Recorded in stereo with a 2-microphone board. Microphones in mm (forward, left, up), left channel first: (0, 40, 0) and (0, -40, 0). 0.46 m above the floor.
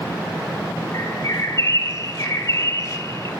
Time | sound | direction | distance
0.9 | a bird | 40° left (ahead or behind) | 1.7 m